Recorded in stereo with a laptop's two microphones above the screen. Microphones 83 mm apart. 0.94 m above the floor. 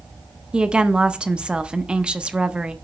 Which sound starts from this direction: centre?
A woman speaking, at 0.5 s.